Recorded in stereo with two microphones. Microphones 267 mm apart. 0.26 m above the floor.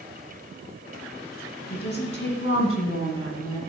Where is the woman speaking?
35° left (ahead or behind), 2.5 m; by 3.6 s 60° left (ahead or behind), 2 m.